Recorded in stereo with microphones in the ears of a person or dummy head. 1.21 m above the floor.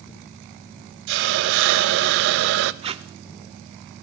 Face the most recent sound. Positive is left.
turn(degrees=-35)  # may be behind; listen again after turning